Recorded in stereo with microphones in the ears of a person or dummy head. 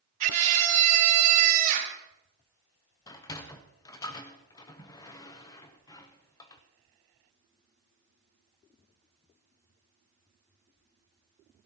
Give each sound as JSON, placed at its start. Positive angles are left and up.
{"t": 0.2, "sound": "a scream", "side_deg": -40, "distance_m": 2.0}
{"t": 3.1, "sound": "a sliding door", "side_deg": 15, "distance_m": 0.7}